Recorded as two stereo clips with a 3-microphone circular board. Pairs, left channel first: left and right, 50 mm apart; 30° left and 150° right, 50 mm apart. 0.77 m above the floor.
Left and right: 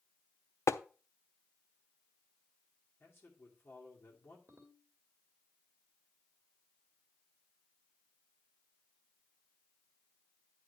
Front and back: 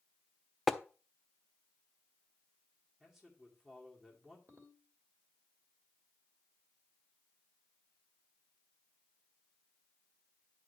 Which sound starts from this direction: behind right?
A ringtone, at 4.5 s.